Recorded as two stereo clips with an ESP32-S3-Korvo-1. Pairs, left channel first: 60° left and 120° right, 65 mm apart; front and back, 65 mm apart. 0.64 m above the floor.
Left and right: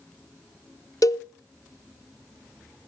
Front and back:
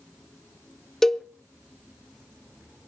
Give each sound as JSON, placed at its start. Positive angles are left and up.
{"t": 1.0, "sound": "a cowbell", "azimuth_deg": 80, "distance_m": 0.6}